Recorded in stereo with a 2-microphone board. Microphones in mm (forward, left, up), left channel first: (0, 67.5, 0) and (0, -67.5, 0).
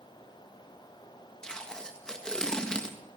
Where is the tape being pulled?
5° left (ahead or behind), 1.7 m.